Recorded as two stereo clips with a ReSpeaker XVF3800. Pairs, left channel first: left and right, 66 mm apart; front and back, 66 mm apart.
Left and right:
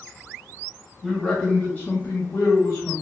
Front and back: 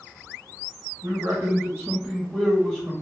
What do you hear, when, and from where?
1.0 s a man speaking: straight behind, 0.8 m; by 2.9 s 95° left, 1.0 m